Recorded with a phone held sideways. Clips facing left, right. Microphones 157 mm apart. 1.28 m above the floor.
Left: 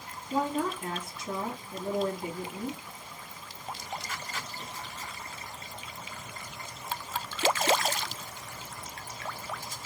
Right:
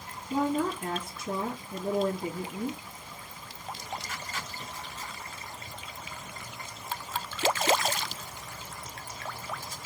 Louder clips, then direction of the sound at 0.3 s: Right 2 dB; 60° right (ahead or behind).